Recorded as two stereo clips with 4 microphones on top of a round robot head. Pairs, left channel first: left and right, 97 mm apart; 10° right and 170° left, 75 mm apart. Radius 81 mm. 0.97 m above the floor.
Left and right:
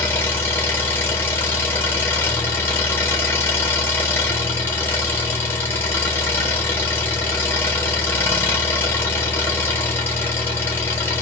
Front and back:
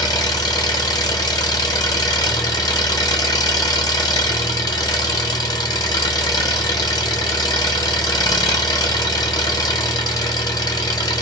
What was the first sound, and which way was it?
An engine running, 20° left.